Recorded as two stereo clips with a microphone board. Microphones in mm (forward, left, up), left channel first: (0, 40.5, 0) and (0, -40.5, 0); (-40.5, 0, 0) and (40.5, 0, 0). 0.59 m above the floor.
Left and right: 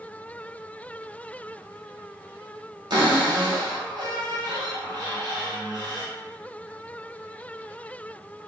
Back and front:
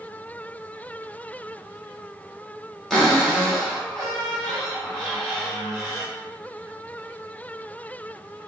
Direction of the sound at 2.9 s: 95° right.